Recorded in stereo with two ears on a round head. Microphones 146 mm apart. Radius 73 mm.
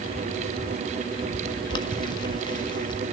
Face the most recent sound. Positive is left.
turn(degrees=30)  # may be behind; listen again after turning